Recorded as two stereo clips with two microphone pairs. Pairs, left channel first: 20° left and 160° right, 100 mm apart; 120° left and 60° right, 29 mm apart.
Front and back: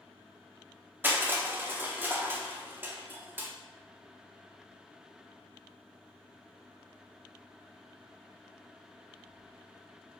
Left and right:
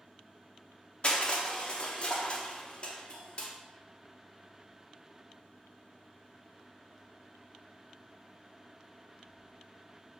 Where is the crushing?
135° left, 0.6 m.